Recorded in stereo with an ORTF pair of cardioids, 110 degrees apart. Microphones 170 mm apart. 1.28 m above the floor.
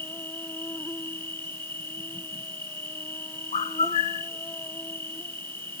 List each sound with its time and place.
0.0 s an insect: 10° left
3.5 s a bird: 40° left